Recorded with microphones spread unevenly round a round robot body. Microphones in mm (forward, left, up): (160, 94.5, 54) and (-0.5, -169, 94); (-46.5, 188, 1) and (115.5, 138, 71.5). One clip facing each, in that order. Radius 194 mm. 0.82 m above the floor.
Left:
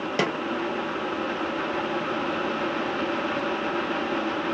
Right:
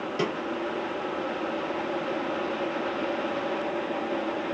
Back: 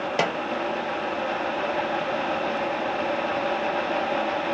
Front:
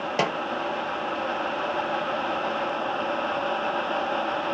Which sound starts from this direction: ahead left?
A snare drum, at 0.2 s.